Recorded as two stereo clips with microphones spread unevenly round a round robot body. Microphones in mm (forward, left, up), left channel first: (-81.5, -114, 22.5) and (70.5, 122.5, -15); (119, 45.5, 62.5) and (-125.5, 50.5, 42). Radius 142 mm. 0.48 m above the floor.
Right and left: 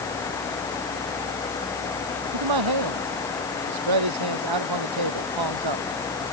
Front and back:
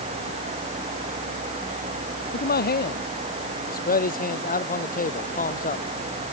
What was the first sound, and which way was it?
A man speaking, 50° left.